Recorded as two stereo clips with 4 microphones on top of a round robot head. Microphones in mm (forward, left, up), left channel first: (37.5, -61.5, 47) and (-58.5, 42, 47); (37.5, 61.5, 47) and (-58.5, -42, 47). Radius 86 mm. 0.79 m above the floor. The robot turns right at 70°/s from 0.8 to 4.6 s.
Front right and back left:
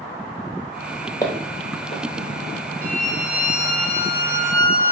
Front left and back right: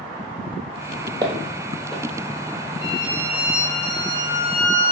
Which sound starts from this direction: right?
Footsteps, at 1.2 s.